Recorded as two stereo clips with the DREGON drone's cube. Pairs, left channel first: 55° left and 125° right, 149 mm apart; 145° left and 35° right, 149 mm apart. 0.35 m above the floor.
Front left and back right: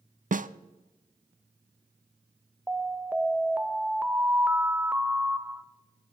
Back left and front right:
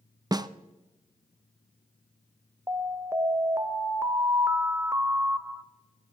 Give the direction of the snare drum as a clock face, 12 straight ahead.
3 o'clock.